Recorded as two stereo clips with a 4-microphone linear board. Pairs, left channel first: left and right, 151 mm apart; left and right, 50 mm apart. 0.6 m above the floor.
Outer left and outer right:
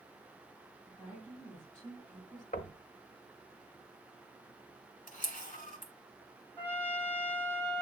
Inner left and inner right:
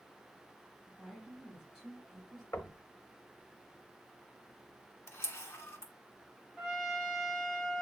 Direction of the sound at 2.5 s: 65° left (ahead or behind).